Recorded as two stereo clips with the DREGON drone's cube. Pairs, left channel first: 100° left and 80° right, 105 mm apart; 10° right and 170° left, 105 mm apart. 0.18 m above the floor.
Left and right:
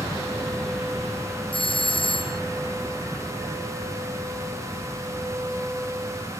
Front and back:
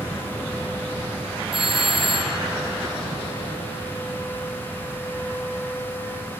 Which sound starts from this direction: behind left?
A doorbell, at 1.5 s.